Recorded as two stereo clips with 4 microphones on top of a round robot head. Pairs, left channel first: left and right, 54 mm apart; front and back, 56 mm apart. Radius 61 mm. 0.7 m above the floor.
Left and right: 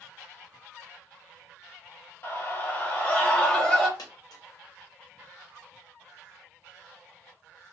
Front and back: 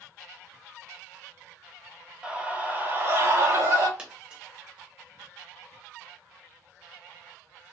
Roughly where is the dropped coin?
Left.